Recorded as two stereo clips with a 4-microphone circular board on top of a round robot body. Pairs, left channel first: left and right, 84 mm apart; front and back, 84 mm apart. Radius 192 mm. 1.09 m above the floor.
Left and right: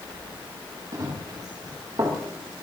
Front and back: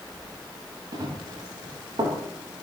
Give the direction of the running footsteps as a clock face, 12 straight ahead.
5 o'clock.